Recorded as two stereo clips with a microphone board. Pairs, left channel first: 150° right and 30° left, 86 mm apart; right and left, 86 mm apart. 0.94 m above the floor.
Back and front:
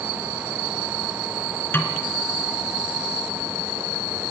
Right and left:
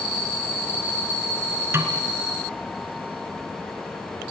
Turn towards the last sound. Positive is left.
turn(degrees=150)